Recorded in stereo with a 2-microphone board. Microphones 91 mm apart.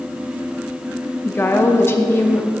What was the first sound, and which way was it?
A woman speaking, 25° left (ahead or behind).